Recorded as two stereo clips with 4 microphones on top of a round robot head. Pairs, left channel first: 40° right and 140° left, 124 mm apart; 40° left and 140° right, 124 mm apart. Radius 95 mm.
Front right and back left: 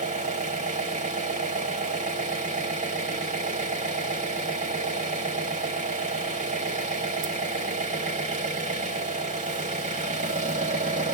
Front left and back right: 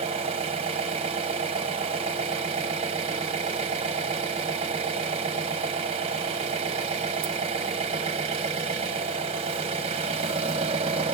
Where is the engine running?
170° left, 0.8 m.